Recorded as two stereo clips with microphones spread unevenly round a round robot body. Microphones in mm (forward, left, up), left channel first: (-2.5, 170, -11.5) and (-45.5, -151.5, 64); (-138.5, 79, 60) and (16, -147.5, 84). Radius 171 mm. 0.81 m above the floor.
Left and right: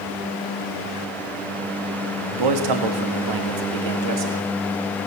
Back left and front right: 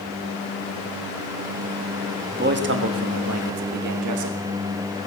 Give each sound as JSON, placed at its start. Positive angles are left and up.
{"t": 2.3, "sound": "a man speaking", "azimuth_deg": -115, "distance_m": 1.7}